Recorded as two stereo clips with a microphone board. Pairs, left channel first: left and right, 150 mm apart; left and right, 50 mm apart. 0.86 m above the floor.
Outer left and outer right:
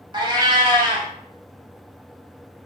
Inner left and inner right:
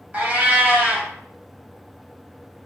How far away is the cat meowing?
About 0.9 m.